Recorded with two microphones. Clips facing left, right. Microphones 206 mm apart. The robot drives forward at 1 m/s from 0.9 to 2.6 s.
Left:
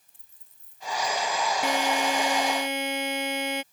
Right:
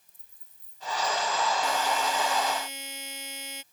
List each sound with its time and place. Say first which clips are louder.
0.1 s a dropped coin: left 1 dB; 75° left (ahead or behind); by 1.3 s 80° left
1.6 s a buzzer: left 3 dB; 70° left (ahead or behind)